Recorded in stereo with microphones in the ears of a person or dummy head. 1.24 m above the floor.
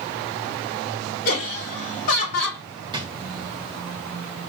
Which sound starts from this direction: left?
Laughter, at 1.2 s.